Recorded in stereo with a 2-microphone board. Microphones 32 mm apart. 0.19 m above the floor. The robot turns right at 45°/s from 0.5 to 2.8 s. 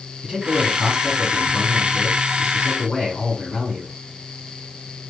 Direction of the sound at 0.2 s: 30° right (ahead or behind).